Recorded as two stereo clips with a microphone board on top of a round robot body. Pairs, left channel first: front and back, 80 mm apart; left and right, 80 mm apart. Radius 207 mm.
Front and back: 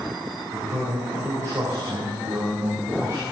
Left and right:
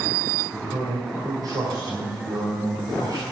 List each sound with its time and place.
0.5 s a man speaking: 125° right, 3.5 m